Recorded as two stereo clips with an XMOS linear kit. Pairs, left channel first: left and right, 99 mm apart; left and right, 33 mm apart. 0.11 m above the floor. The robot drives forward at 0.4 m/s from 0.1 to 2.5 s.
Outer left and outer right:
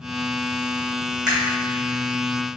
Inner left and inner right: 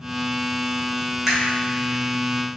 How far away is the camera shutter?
About 2.0 m.